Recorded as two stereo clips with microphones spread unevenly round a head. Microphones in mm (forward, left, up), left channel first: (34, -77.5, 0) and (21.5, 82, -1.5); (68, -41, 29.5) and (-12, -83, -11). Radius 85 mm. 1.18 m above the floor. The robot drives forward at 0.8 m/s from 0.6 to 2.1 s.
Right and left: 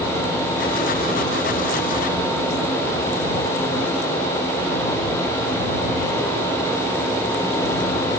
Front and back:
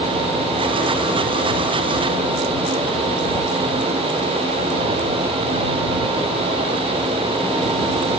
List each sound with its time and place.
Only background noise.